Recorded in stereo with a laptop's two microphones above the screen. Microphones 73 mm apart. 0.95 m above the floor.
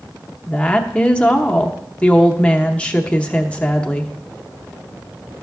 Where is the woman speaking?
15° left (ahead or behind), 0.9 m.